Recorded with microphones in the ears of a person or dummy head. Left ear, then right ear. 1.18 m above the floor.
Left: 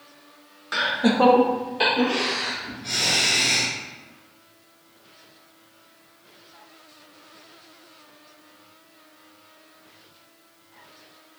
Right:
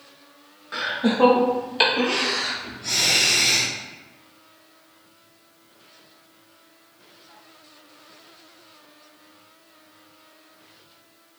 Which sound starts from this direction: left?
Laughter, at 0.7 s.